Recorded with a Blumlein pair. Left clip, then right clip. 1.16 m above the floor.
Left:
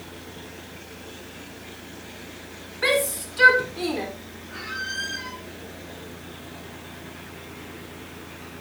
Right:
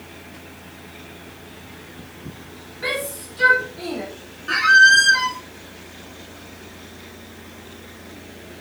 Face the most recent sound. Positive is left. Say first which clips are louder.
# right 21 dB
turn(degrees=-45)